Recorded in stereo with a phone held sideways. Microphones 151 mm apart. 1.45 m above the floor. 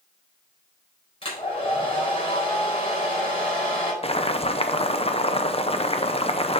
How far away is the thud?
No thud in this recording.